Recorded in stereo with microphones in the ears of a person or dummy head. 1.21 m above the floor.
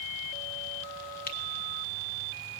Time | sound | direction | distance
1.3 | a finger snap | 40° left (ahead or behind) | 1.6 m